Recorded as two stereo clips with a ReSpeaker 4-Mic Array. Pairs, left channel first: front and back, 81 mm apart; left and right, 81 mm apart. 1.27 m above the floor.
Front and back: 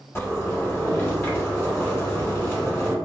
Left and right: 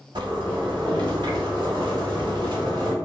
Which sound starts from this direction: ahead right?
A zipper, at 0.1 s.